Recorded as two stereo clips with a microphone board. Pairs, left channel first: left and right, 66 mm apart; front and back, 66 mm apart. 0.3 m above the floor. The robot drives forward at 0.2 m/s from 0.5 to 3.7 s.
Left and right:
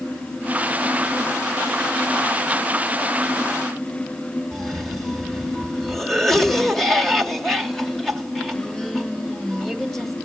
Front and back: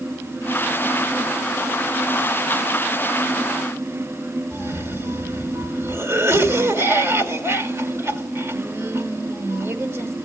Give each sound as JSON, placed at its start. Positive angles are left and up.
{"t": 4.5, "sound": "a cough", "azimuth_deg": 175, "distance_m": 1.8}